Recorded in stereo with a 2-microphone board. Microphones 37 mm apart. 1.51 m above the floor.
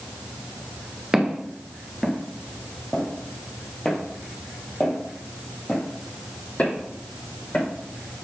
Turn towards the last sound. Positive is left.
turn(degrees=50)  # may be behind; listen again after turning